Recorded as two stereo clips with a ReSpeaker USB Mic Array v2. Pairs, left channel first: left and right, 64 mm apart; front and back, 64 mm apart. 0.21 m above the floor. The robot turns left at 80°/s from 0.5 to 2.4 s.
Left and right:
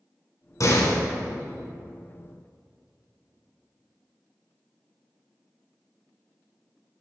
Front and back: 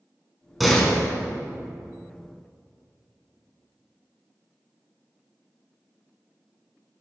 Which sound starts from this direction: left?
A door slam, at 0.6 s.